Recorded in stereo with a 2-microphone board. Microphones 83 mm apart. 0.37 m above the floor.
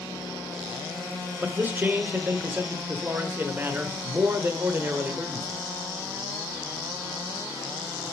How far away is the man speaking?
About 1.2 m.